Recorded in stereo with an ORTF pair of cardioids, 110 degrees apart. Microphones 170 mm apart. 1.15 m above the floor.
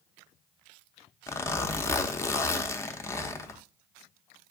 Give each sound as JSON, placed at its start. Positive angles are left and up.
{"t": 1.3, "sound": "a zipper", "azimuth_deg": 15, "distance_m": 0.6}